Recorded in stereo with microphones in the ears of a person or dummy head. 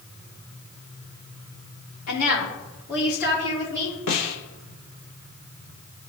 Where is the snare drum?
65° left (ahead or behind), 1.5 m.